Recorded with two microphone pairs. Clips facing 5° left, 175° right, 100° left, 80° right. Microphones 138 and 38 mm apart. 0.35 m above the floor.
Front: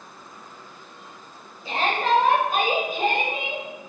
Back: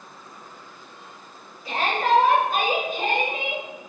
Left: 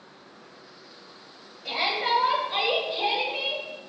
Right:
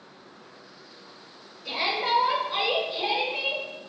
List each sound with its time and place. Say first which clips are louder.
1.6 s a shout: even, left 1 dB; 55° left, 1.8 m; by 3.6 s 105° left, 1.3 m